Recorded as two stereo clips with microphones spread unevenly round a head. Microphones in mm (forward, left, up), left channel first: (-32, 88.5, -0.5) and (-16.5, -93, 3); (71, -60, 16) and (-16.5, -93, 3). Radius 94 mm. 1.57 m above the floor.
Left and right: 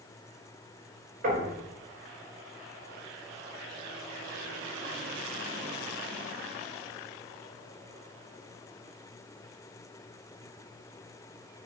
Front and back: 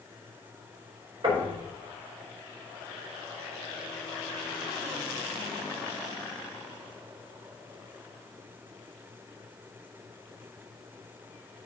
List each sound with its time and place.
1.2 s knocking: 125° right, 5 m